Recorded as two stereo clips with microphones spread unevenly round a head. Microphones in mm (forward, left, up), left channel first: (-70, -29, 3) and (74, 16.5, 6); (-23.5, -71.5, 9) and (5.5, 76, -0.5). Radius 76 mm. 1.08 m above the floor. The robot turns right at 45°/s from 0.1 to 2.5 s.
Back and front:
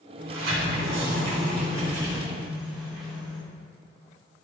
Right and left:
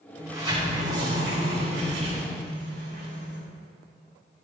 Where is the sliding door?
Straight ahead, 4 m; by 3.4 s 105° left, 4 m.